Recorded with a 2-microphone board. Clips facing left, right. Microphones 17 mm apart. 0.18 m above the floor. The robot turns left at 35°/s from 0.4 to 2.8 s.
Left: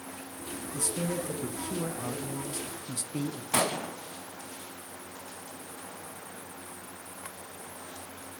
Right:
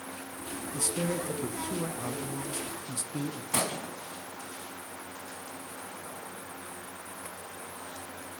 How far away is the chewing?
No chewing in this recording.